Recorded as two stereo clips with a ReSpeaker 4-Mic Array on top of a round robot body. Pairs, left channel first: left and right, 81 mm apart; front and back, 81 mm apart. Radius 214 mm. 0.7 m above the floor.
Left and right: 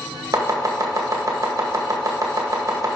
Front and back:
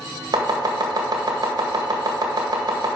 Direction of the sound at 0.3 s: 140° right.